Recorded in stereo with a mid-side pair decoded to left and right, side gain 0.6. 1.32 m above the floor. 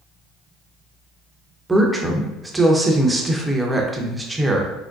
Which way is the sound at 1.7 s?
15° right.